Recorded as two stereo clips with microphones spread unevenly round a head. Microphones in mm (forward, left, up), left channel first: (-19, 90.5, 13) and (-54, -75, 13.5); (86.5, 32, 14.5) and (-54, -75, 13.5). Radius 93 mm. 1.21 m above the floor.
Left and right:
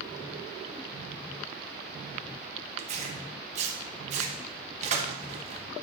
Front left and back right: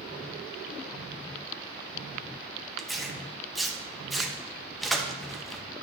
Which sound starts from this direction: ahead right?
Tearing paper, at 2.8 s.